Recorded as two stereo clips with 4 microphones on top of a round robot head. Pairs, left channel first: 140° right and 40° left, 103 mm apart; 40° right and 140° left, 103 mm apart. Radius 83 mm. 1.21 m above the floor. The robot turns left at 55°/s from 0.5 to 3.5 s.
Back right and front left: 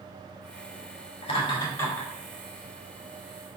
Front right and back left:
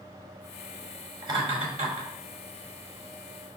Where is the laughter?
170° right, 3.5 m; by 2.1 s 140° left, 3.5 m.